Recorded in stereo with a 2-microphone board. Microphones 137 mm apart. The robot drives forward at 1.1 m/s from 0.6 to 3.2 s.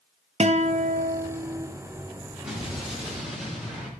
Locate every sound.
0.4 s a guitar: 50° right (ahead or behind), 0.7 m; by 1.7 s 35° right (ahead or behind), 0.9 m
2.4 s an explosion: 5° right (ahead or behind), 3.5 m